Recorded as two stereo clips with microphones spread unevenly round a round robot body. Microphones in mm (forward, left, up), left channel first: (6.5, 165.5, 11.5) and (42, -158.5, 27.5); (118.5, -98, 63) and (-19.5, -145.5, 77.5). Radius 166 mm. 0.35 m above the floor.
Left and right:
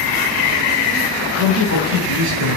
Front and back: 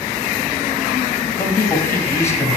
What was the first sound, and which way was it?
A man speaking, 50° right.